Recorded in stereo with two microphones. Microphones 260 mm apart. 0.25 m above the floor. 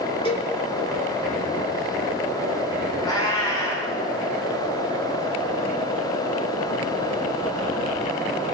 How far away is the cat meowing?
About 9.5 m.